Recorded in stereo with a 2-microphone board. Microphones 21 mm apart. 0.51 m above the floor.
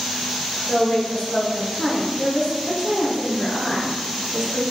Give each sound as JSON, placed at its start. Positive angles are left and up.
{"t": 0.7, "sound": "a woman speaking", "side_deg": 60, "distance_m": 1.9}